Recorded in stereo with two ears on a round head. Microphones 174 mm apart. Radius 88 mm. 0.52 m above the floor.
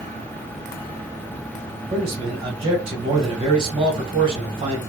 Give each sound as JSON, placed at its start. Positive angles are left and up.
{"t": 1.9, "sound": "a man speaking", "side_deg": -30, "distance_m": 1.5}